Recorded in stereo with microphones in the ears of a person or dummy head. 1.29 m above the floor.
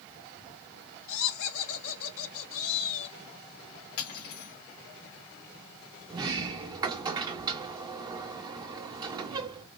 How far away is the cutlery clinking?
About 2.5 m.